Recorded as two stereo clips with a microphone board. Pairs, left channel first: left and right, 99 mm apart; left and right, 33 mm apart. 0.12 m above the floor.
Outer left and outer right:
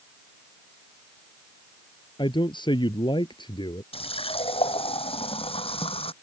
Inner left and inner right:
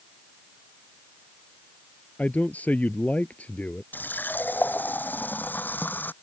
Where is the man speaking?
55° left (ahead or behind).